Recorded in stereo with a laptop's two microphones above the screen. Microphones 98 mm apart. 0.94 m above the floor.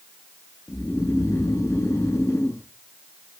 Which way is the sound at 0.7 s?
30° left (ahead or behind).